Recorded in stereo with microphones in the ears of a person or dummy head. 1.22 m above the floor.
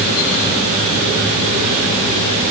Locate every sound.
Only background noise.